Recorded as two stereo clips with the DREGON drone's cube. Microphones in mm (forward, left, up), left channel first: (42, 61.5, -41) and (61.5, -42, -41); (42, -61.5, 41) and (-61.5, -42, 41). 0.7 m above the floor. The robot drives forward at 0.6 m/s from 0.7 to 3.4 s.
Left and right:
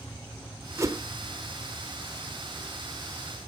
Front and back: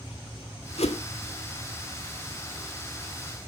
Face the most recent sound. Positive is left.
turn(degrees=-125)